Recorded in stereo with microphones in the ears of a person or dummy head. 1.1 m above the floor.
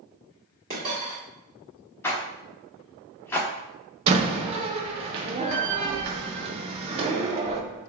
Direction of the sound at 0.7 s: 45° right (ahead or behind).